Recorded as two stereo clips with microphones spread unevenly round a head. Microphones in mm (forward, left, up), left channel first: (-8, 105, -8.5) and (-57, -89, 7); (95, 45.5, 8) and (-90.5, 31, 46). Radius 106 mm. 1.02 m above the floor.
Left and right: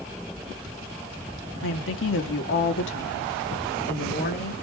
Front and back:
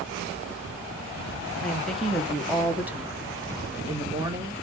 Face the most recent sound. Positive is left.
turn(degrees=115)